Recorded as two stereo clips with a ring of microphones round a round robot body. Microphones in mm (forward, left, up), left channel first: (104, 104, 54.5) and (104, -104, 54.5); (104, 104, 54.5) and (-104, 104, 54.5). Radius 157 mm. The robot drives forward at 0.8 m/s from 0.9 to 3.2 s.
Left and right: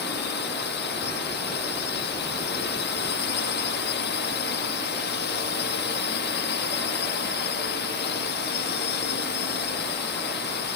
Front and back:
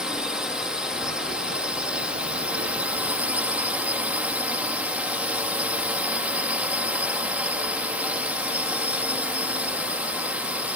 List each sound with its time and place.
0.0 s a drone: 95° left; by 10.8 s 100° left